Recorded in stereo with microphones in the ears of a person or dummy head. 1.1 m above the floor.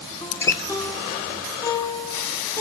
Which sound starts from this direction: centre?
A guitar, at 0.2 s.